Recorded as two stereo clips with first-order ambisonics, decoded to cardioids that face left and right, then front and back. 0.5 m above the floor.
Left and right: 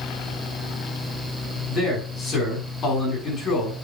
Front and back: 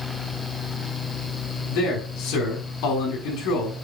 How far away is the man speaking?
About 5.5 m.